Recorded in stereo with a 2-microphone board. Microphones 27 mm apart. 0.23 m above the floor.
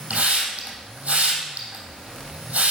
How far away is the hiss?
About 3 m.